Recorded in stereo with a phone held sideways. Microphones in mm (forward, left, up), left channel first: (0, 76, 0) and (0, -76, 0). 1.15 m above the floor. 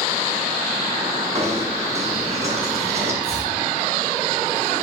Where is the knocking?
45° right (ahead or behind), 8 m.